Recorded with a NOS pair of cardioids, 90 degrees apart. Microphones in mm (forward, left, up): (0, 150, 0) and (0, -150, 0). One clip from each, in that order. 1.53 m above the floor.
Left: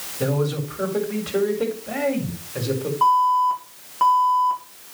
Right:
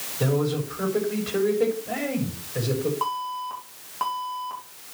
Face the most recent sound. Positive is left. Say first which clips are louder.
# left 12 dB
turn(degrees=15)